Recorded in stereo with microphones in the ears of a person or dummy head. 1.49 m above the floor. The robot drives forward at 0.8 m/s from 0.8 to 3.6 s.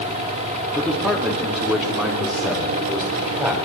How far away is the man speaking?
About 2.5 m.